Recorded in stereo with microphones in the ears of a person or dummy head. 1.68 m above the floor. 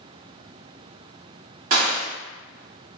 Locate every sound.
1.7 s a gunshot: 40° right (ahead or behind), 2.0 m